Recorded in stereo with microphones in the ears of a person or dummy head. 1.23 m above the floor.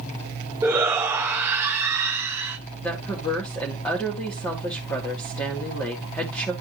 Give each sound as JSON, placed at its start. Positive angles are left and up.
{"t": 0.6, "sound": "a shout", "side_deg": -10, "distance_m": 0.7}
{"t": 2.8, "sound": "a woman speaking", "side_deg": 15, "distance_m": 2.0}